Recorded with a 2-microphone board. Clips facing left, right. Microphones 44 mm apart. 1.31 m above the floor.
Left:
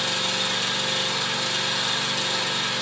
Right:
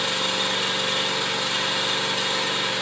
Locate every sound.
0.0 s an engine running: 30° right (ahead or behind), 3.5 m